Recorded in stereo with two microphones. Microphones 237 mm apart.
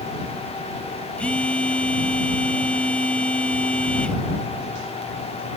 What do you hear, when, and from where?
1.2 s a phone buzzing: 5° left (ahead or behind)